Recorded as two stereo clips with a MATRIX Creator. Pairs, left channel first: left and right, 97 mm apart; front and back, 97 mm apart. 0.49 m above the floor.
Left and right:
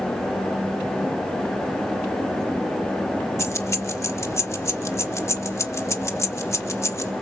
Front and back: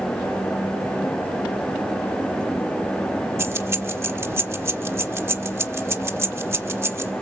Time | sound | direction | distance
3.4 | keys jangling | 130° left | 0.9 m